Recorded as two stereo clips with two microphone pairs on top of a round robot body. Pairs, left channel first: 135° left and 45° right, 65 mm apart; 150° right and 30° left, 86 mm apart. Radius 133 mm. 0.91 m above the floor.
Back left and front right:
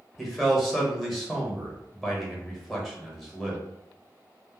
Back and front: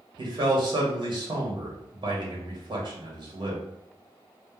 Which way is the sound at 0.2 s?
35° left.